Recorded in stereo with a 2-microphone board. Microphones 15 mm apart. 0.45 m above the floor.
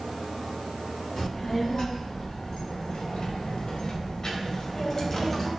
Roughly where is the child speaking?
Left.